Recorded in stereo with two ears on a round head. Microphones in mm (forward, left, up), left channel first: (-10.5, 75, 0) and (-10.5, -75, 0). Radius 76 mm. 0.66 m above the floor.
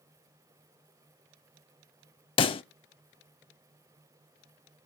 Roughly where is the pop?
Left.